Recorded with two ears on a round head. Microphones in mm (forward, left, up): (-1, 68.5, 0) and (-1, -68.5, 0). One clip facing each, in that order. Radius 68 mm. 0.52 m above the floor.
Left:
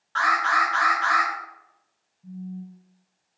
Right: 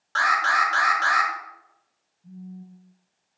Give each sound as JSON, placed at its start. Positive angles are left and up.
{"t": 0.1, "sound": "an alarm", "side_deg": -50, "distance_m": 2.0}
{"t": 2.2, "sound": "a phone buzzing", "side_deg": 85, "distance_m": 1.8}